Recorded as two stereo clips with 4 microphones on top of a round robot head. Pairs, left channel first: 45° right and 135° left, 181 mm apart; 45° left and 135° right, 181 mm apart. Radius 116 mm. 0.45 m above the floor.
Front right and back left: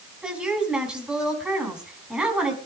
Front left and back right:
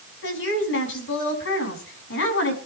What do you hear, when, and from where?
0.2 s a woman speaking: 50° left, 5.5 m